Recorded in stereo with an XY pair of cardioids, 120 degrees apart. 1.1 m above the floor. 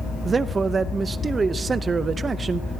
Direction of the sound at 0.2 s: 30° right.